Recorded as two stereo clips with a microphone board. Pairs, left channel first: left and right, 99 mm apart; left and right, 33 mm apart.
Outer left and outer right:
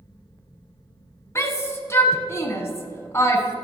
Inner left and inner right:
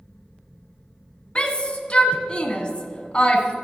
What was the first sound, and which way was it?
A shout, 30° left (ahead or behind).